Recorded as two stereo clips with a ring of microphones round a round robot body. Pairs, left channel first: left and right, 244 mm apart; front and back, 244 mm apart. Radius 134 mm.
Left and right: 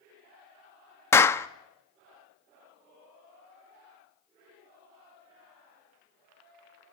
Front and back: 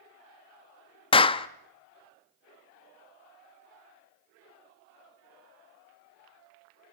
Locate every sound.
1.1 s a clap: 25° left, 0.8 m